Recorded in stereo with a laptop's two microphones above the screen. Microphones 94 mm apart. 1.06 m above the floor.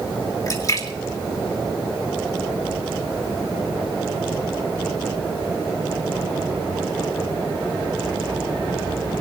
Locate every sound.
0.5 s a splash: 35° left (ahead or behind), 2 m